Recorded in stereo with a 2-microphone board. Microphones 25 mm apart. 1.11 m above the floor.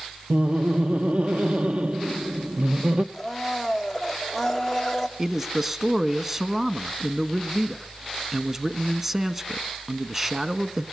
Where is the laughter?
60° right (ahead or behind), 1.0 m.